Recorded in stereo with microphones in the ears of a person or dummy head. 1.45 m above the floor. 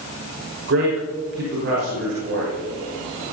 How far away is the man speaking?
About 6 m.